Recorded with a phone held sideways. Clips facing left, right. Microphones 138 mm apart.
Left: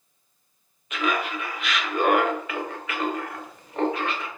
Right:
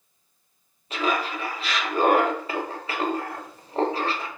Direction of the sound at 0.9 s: 35° right (ahead or behind).